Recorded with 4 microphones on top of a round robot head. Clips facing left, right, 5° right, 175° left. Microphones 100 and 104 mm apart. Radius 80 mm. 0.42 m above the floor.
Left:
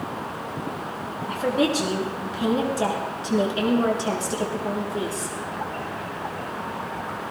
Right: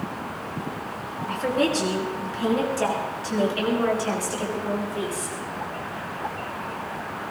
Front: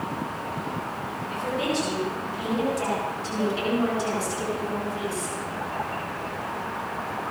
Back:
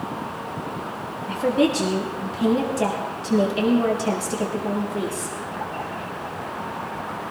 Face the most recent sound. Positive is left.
turn(degrees=145)